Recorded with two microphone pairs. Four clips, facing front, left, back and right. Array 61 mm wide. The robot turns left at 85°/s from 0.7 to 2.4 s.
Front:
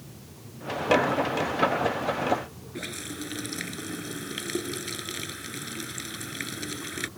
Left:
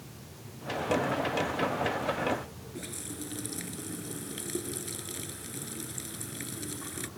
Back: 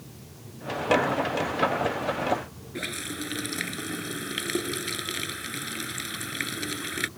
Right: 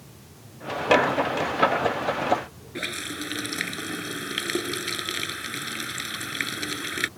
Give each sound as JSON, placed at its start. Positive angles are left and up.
{"t": 2.8, "sound": "a running tap", "azimuth_deg": -110}